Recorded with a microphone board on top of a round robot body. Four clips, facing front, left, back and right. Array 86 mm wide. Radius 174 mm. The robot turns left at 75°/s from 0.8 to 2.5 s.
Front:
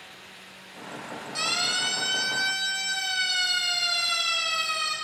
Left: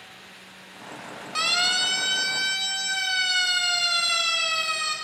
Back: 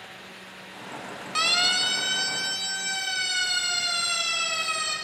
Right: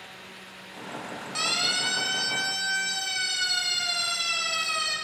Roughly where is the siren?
Behind.